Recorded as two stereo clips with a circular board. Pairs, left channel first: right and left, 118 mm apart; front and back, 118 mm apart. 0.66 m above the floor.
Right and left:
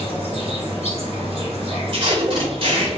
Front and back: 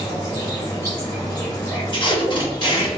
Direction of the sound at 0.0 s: 60° left.